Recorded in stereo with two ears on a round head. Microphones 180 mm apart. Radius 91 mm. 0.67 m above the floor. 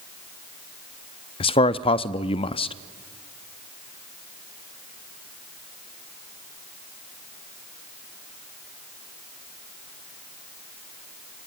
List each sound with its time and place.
1.4 s a man speaking: 25° left (ahead or behind), 0.6 m